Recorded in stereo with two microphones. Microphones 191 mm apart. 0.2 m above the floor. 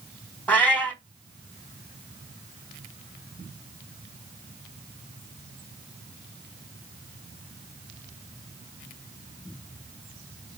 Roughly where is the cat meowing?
Centre.